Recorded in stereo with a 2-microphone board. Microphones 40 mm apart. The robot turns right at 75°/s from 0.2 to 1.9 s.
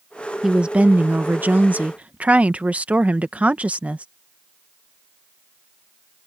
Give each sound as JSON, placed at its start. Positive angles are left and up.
{"t": 0.4, "sound": "a woman speaking", "azimuth_deg": -160}